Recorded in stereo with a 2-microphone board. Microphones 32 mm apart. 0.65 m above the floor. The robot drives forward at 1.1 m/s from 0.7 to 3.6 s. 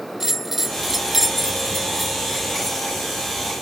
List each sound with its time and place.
0.2 s a bell: 10° right (ahead or behind); by 2.9 s 5° right (ahead or behind)